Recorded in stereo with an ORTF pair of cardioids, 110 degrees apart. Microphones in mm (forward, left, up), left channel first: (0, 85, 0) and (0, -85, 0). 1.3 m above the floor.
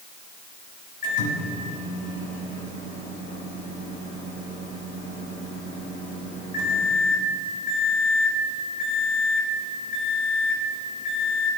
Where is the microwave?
55° left, 4.5 m.